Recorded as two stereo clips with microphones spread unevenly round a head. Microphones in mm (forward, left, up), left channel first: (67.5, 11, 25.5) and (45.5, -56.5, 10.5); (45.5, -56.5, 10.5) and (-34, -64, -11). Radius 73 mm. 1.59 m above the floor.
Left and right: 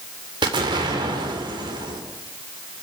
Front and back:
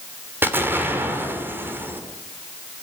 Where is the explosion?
105° right, 2.5 m.